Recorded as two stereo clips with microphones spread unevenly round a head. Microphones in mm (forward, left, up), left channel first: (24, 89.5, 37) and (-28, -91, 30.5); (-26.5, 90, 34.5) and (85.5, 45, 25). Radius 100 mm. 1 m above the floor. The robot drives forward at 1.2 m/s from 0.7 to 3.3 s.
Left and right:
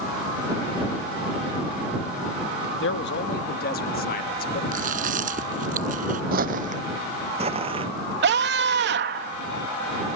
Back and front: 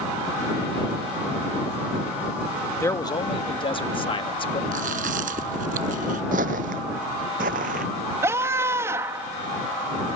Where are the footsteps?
65° right; by 7.9 s 40° right.